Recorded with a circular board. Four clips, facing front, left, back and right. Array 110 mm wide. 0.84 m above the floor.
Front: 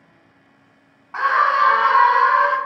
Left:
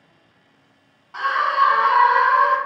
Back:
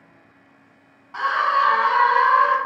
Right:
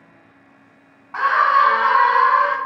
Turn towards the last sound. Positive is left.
turn(degrees=-50)